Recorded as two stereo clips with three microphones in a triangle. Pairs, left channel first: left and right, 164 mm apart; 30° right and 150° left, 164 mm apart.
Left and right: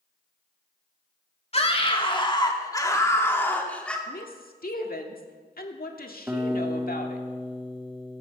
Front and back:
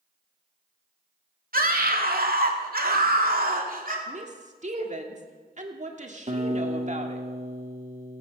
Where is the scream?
135° left, 2 m; by 4.0 s 175° left, 2.5 m.